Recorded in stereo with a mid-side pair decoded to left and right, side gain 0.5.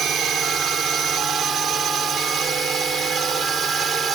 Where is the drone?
55° right; by 4.2 s 45° right.